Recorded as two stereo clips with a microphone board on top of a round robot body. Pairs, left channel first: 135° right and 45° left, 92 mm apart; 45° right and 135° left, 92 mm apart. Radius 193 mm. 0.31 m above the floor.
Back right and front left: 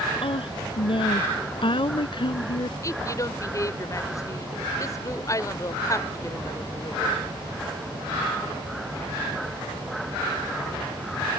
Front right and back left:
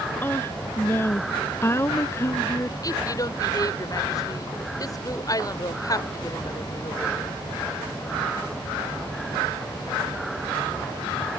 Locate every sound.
0.2 s a woman speaking: 115° right; by 2.7 s 105° right
2.8 s a woman speaking: 85° right